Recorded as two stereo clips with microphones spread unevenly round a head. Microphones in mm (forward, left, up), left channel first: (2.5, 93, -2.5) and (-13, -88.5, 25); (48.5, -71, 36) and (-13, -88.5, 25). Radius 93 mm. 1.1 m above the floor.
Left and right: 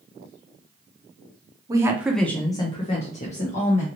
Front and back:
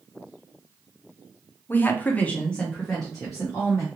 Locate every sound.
1.7 s a woman speaking: 25° right, 0.7 m; by 3.9 s 115° left, 1.2 m